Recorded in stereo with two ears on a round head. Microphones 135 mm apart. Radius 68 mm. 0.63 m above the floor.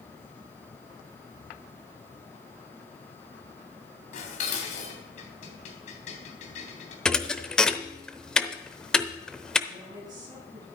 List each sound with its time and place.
4.1 s dishes clattering: 50° left (ahead or behind), 3 m
7.0 s a thud: 5° left (ahead or behind), 0.8 m
9.7 s a woman speaking: 25° right (ahead or behind), 6 m